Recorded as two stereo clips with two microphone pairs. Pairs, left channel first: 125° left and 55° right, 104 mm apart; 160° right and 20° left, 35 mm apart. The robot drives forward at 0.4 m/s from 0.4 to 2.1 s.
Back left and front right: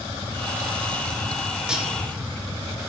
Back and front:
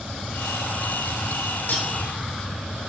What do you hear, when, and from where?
1.7 s cutlery clinking: 135° right, 1.1 m; by 1.9 s 140° right, 1.2 m